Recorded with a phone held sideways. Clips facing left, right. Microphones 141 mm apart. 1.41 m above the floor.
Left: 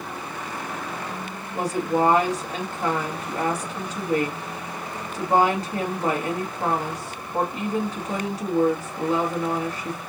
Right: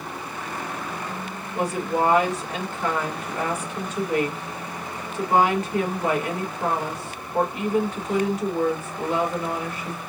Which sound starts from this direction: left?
A woman speaking, at 1.5 s.